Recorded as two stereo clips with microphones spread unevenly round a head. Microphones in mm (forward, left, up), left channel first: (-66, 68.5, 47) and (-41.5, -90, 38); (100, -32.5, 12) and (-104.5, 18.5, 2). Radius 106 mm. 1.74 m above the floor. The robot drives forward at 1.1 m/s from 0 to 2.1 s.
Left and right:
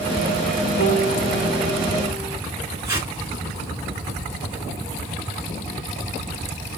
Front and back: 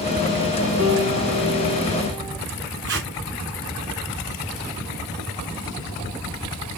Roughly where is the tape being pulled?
Behind right.